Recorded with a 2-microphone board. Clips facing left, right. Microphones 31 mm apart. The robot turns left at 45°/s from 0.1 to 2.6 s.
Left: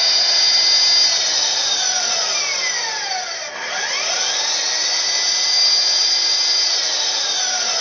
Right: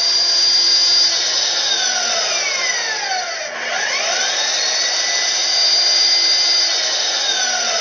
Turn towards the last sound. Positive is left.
turn(degrees=-70)